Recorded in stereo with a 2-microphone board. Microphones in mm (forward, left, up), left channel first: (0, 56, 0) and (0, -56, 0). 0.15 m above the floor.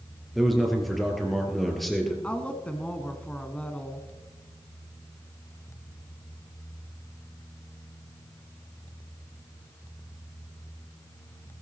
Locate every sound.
0.3 s a man speaking: centre (ahead or behind), 3.5 m
2.2 s a woman speaking: 10° left (ahead or behind), 1.2 m